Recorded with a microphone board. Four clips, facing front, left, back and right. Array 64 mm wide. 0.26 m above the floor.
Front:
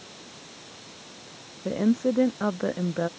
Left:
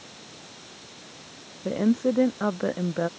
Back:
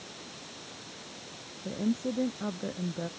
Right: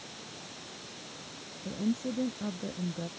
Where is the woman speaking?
55° left.